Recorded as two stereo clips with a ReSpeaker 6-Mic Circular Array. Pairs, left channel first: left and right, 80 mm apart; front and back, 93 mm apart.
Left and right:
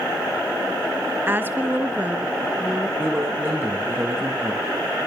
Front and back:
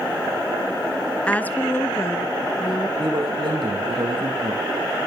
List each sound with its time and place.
1.3 s a woman speaking: 65° right, 1.2 m; by 2.9 s 15° right, 1.6 m
3.0 s a man speaking: 150° right, 7.5 m